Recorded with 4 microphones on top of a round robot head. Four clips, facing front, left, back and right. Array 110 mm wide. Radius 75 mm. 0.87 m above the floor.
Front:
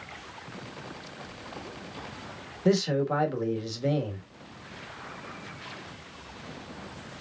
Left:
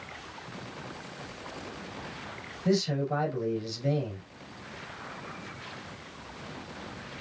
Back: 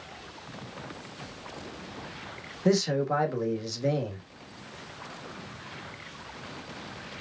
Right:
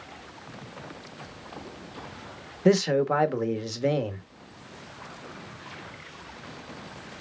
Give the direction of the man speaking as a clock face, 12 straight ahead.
3 o'clock.